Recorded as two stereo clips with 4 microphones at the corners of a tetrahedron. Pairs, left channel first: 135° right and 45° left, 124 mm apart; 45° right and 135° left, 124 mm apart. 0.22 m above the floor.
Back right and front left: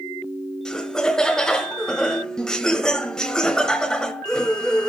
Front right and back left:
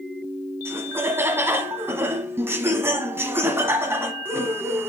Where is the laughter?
150° left, 1.0 m.